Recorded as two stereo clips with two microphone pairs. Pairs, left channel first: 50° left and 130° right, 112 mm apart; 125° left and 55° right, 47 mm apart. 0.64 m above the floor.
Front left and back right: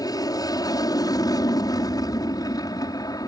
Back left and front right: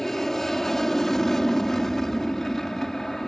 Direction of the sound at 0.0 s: 50° left.